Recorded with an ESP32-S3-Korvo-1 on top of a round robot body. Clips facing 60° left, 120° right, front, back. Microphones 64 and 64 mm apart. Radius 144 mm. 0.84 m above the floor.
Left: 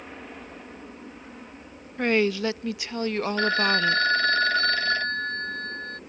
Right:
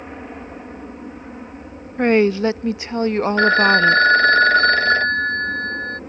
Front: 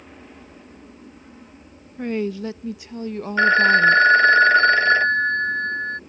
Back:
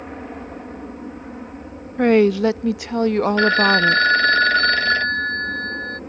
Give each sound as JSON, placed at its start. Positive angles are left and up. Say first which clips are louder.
{"t": 0.0, "sound": "an aircraft", "louder": "right 7 dB, back 11 dB", "azimuth_deg": -175}
{"t": 2.0, "sound": "a woman speaking", "louder": "right 8 dB, back 11 dB", "azimuth_deg": 180}
{"t": 3.4, "sound": "a phone ringing", "louder": "right 10 dB, front 4 dB", "azimuth_deg": -75}